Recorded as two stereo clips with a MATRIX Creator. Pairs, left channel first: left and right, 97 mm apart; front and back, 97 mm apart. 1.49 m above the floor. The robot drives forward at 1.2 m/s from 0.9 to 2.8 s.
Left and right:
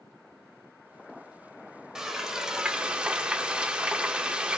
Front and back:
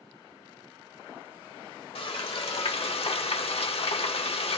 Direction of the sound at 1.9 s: 5° right.